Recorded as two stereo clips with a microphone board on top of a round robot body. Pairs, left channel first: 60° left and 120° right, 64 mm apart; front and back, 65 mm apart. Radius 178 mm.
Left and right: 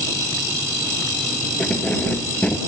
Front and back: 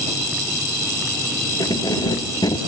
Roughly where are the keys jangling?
Ahead.